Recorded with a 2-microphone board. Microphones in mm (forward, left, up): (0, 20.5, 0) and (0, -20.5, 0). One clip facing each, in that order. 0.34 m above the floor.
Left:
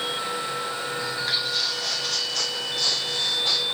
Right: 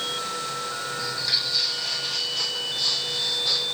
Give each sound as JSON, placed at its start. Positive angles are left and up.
{"t": 1.0, "sound": "footsteps", "side_deg": 25, "distance_m": 0.7}